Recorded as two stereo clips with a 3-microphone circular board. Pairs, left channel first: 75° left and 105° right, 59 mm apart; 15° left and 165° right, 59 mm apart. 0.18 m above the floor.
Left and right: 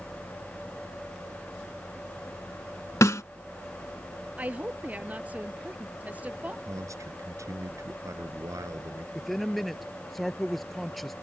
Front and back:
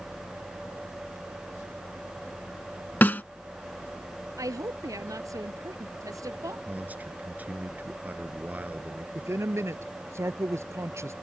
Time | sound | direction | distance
3.0 | a snare drum | 70° left | ?
4.4 | a woman speaking | 170° right | ?
6.7 | a man speaking | 105° right | ?
9.2 | a man speaking | 165° left | ?